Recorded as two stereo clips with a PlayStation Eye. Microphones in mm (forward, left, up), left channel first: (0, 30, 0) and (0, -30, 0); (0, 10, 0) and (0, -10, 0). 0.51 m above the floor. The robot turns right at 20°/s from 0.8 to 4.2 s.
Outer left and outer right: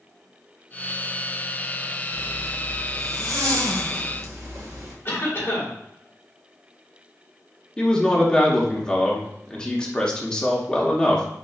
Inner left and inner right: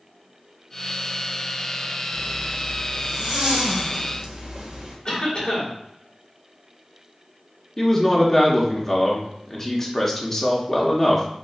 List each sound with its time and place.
2.1 s a zipper: 105° right, 1.1 m; by 5.0 s 60° right, 1.1 m
5.0 s a cough: 40° left (ahead or behind), 1.9 m
7.8 s a man speaking: 10° left (ahead or behind), 0.9 m